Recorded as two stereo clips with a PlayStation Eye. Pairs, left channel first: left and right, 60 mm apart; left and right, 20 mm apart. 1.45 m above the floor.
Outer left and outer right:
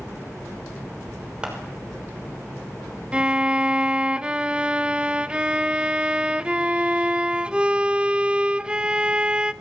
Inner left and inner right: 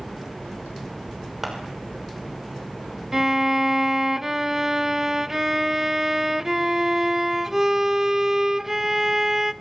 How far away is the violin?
About 0.9 m.